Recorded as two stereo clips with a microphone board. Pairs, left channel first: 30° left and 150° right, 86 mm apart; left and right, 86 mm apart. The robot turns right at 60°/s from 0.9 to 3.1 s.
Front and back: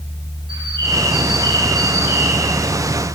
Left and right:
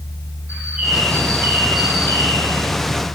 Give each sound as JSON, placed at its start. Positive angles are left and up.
{"t": 0.5, "sound": "a bird", "azimuth_deg": -160, "distance_m": 8.5}